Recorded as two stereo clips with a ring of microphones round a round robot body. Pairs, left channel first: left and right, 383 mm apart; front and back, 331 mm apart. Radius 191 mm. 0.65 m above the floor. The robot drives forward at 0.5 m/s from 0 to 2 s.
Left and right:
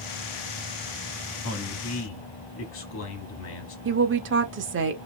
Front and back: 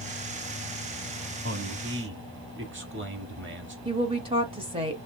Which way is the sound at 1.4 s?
125° left.